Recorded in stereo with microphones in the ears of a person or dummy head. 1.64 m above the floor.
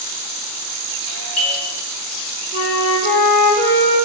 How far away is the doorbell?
About 3 m.